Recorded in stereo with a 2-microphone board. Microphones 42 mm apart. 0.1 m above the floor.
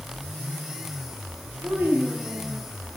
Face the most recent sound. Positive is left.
turn(degrees=-65)  # may be behind; listen again after turning